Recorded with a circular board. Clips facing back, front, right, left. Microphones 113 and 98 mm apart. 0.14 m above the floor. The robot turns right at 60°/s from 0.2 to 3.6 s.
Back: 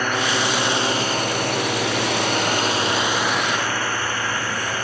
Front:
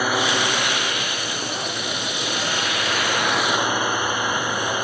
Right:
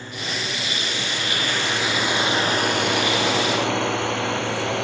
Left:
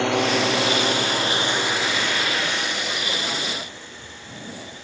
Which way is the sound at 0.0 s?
80° left.